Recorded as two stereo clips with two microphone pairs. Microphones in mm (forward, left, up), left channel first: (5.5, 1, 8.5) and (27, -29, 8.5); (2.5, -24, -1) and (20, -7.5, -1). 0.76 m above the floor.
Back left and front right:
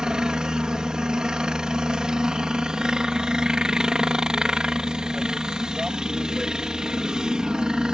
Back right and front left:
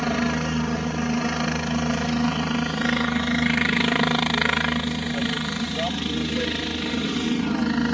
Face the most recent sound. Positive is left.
turn(degrees=-50)